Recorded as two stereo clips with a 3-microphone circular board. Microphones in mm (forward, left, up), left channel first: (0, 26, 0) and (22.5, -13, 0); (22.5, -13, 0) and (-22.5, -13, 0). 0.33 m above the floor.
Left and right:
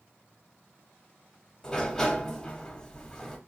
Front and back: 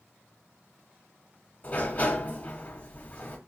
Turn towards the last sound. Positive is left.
turn(degrees=45)